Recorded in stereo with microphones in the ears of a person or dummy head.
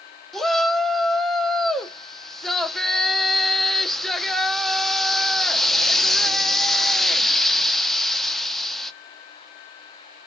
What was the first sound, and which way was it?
A shout, centre (ahead or behind).